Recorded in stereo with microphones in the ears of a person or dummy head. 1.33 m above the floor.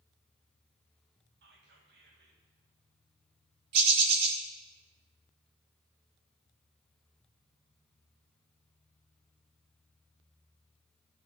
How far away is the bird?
About 1.9 m.